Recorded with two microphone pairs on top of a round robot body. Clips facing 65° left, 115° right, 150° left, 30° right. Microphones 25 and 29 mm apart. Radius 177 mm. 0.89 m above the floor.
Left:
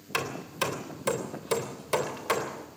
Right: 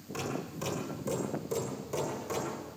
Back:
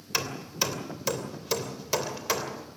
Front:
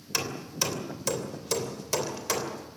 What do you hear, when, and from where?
0.1 s hammering: 75° left, 3 m